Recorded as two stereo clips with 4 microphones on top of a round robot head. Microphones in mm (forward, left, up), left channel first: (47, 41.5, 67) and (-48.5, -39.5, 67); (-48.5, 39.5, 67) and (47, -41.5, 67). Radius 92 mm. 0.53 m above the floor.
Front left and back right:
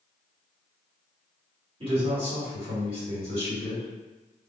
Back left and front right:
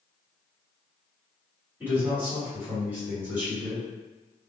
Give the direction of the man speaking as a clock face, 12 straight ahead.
4 o'clock.